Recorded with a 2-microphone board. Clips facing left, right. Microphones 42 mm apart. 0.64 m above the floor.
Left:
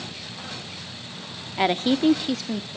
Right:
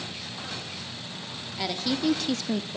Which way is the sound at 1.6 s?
45° left (ahead or behind).